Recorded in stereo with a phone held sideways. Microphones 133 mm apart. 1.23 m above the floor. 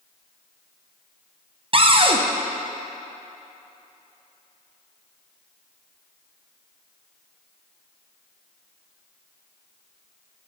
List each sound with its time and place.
1.7 s a cupboard door: 40° right (ahead or behind), 0.6 m